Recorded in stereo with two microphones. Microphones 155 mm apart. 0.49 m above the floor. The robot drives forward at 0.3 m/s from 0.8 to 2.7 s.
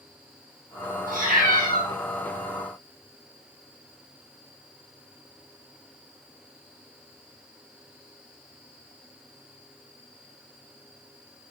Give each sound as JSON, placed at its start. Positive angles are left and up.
{"t": 1.1, "sound": "a cat meowing", "side_deg": -65, "distance_m": 0.6}